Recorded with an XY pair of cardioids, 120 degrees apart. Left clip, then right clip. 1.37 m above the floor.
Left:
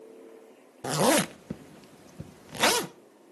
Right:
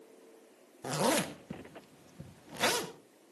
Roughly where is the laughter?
No laughter in this recording.